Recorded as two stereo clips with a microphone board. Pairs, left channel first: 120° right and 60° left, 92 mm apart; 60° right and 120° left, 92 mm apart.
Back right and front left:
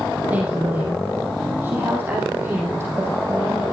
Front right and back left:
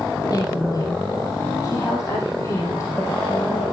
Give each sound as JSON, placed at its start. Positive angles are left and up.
{"t": 0.3, "sound": "a woman speaking", "azimuth_deg": -15, "distance_m": 5.0}